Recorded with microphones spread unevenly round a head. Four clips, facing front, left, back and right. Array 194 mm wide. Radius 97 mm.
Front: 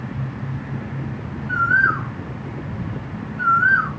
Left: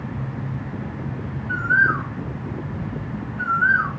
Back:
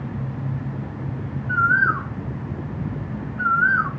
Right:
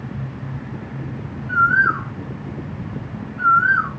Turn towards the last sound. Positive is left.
turn(degrees=-80)